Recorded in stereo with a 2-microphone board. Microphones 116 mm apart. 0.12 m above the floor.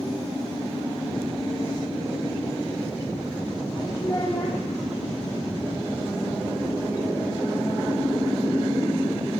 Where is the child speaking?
20° left (ahead or behind), 2.5 m.